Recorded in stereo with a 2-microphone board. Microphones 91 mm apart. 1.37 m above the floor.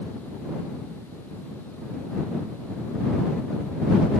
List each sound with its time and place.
Only background noise.